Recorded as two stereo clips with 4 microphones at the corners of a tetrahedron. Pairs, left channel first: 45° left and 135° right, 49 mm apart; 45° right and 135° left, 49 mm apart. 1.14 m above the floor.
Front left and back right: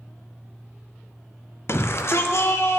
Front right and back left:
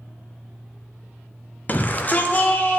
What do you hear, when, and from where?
1.7 s a shout: 10° left, 0.5 m; by 2.8 s 15° left, 1.2 m